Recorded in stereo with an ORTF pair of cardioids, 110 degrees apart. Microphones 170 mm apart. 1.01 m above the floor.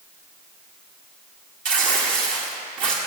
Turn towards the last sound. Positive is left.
turn(degrees=-50)